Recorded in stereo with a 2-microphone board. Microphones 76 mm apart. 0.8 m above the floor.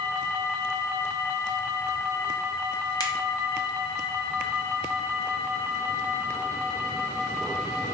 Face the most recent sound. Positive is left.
turn(degrees=55)  # may be behind; listen again after turning